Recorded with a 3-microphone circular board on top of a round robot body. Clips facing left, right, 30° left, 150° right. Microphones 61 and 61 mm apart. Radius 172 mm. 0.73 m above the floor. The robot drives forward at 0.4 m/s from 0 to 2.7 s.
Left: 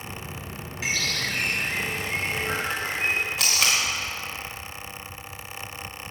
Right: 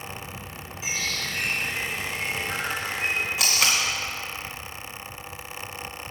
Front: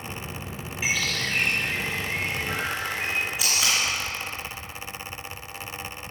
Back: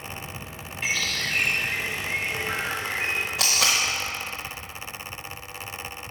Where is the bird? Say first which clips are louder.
Left 3 dB, front 1 dB; 115° left, 1.0 m; by 3.2 s 145° left, 1.5 m.